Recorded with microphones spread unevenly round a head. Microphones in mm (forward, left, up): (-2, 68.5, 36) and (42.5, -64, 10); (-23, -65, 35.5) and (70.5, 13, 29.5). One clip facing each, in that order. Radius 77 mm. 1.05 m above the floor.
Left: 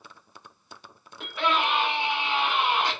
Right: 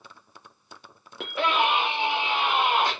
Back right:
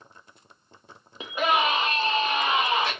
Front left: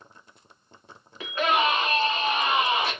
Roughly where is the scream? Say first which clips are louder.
Right 2 dB, even; right.